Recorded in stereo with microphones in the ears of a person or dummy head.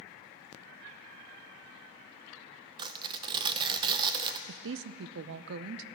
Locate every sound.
2.8 s tearing paper: 25° right (ahead or behind), 0.6 m
4.5 s a woman speaking: 60° right (ahead or behind), 0.6 m